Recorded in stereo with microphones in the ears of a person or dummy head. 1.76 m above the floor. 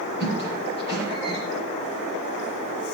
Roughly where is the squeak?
Centre.